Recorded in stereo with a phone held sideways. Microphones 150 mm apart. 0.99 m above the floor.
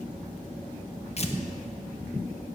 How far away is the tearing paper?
About 1.1 m.